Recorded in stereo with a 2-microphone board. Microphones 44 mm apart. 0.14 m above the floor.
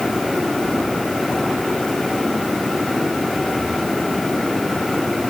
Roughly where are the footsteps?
No footsteps in this recording.